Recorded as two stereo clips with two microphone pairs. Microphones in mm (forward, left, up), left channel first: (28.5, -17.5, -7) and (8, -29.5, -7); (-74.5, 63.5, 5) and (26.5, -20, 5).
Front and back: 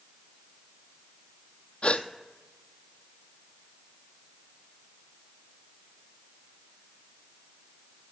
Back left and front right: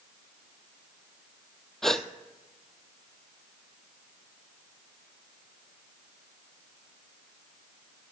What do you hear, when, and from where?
1.8 s a gasp: 55° left, 0.7 m